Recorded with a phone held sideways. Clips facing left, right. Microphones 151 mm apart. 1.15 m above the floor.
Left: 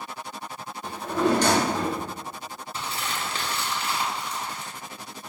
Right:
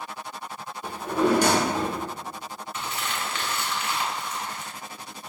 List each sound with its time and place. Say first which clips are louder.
0.8 s a drawer: right 1 dB; 10° right (ahead or behind), 0.9 m
2.7 s crumpling: even; 35° left (ahead or behind), 0.9 m